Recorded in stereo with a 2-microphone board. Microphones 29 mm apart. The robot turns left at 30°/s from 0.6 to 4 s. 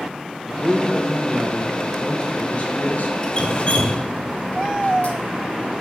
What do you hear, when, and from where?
0.5 s a man speaking: 170° right, 1.9 m; by 3.1 s 115° left, 1.9 m
3.2 s dripping: 30° left (ahead or behind), 1.1 m; by 5.2 s 45° left (ahead or behind), 1.1 m